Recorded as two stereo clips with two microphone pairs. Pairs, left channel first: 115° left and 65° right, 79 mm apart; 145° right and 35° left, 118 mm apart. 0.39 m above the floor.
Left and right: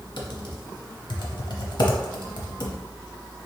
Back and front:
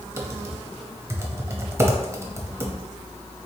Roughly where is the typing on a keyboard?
Left.